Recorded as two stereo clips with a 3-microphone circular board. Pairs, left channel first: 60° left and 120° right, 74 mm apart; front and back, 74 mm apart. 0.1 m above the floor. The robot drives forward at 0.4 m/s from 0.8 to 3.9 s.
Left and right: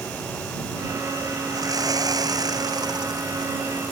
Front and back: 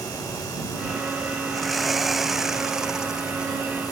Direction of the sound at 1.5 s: 90° right.